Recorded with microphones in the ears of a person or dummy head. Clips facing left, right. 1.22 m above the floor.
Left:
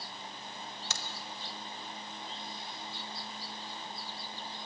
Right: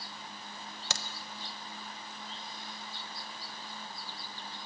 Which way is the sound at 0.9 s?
50° right (ahead or behind).